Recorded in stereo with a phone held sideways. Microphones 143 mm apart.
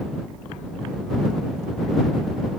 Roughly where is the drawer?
No drawer in this recording.